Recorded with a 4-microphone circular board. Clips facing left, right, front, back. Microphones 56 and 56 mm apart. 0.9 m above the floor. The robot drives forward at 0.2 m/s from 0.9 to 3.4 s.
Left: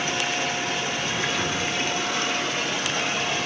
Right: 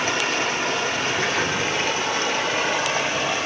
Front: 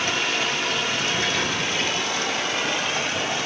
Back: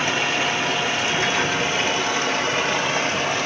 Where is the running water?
110° right, 0.8 m; by 3.5 s 140° right, 1.0 m.